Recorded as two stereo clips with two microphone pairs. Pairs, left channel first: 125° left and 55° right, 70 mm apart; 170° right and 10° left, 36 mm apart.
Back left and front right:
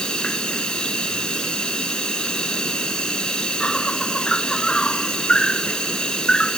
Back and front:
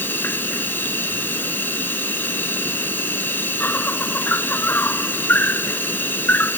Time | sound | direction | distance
0.0 | an insect | 160° right | ?